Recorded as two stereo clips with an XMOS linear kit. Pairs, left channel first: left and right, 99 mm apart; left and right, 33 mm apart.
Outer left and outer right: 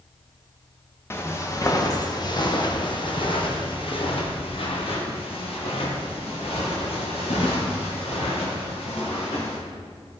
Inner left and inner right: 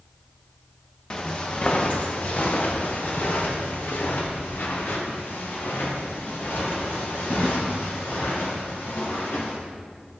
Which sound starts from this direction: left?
Footsteps, at 1.1 s.